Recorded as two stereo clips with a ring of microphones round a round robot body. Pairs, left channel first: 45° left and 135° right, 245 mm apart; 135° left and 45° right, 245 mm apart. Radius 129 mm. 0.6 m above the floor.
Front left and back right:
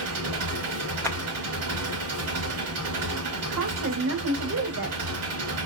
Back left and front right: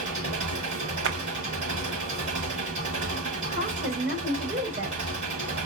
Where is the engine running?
105° right, 3.5 m.